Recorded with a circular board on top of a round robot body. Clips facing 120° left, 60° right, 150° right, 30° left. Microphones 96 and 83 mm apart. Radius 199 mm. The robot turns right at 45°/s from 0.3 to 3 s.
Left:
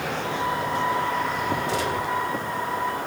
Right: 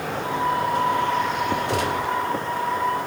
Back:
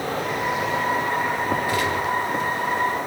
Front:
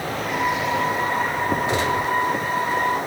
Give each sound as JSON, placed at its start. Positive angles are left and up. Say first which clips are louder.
{"t": 1.7, "sound": "a gunshot", "louder": "right 2 dB, front 1 dB", "azimuth_deg": -35, "distance_m": 3.0}